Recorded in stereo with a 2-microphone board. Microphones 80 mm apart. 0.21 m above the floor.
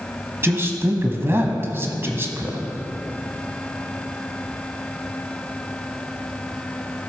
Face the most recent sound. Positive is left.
turn(degrees=-30)  # may be behind; listen again after turning